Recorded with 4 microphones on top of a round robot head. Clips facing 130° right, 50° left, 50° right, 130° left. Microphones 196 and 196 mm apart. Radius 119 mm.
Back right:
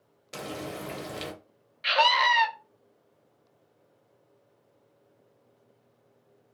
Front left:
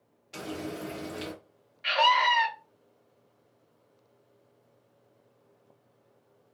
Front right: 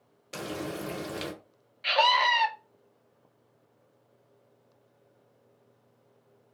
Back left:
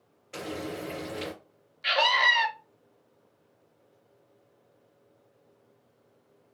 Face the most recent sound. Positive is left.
turn(degrees=-150)